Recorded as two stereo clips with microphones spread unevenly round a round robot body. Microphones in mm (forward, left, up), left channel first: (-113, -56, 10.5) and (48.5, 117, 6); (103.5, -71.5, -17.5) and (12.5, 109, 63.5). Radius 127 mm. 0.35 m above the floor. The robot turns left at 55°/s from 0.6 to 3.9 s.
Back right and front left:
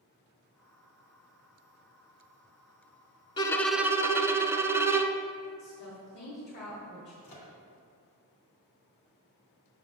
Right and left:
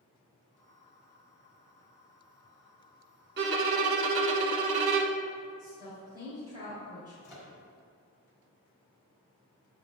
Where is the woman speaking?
155° right, 1.5 m.